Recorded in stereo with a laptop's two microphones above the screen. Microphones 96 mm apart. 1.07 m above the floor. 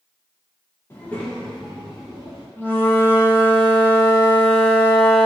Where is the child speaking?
25° left (ahead or behind), 0.8 m; by 2.5 s 10° right (ahead or behind), 1.9 m.